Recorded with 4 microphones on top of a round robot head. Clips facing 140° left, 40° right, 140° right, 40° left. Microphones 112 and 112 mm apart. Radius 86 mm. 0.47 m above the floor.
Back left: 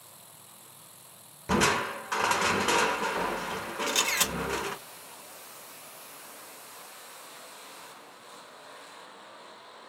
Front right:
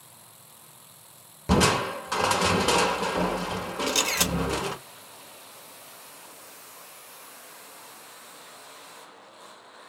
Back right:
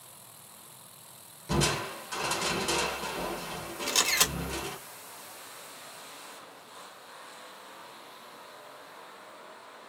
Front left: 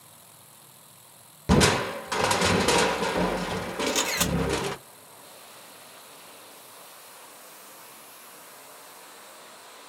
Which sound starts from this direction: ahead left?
Crushing, at 1.5 s.